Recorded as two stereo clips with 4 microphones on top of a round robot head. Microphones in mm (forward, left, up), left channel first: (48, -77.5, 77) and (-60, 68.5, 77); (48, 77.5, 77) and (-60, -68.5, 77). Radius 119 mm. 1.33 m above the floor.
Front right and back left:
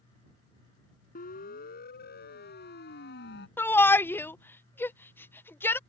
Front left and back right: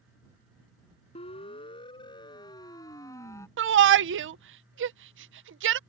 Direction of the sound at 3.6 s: 135° right.